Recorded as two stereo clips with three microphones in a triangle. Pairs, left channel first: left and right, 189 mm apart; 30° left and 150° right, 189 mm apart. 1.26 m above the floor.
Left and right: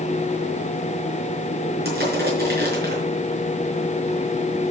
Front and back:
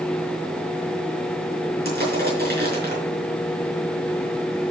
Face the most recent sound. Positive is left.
turn(degrees=-120)